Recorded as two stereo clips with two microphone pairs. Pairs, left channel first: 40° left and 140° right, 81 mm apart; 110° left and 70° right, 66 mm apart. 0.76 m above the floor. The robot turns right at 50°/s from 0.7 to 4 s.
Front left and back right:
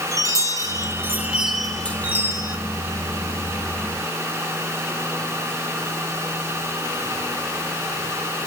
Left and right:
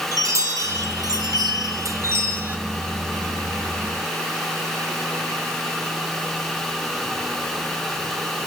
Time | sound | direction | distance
0.1 | a chime | 95° right | 1.6 m